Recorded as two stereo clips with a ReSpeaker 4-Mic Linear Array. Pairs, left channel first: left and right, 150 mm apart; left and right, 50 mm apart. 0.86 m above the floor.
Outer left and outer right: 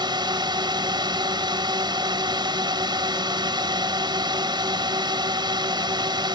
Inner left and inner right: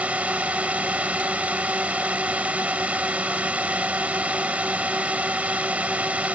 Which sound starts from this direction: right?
A drone, at 0.0 s.